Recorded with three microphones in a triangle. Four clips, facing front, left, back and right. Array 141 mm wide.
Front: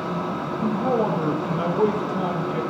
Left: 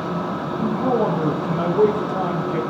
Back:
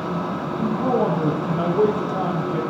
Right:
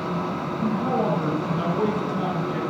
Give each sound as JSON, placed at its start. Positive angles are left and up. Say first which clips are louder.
{"t": 0.6, "sound": "a man speaking", "louder": "left 4 dB, back 2 dB", "azimuth_deg": 135, "distance_m": 6.0}